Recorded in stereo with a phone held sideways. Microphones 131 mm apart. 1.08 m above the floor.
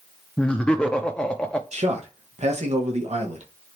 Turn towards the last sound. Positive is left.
turn(degrees=-55)  # may be behind; listen again after turning